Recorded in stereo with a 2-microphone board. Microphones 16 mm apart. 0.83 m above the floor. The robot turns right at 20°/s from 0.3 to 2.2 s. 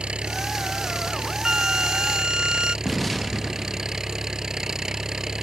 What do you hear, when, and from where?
0.0 s an engine running: 75° right; by 5.4 s 35° right
1.4 s a flute: 40° right (ahead or behind); by 2.8 s 55° right (ahead or behind)
2.9 s an explosion: 10° left (ahead or behind)